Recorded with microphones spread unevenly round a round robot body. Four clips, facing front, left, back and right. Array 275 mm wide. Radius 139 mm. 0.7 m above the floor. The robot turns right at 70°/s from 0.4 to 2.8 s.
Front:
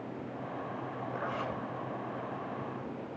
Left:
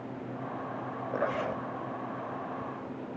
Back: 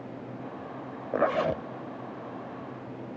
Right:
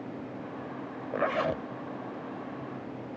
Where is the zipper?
175° left, 0.6 m; by 1.6 s 145° right, 0.6 m.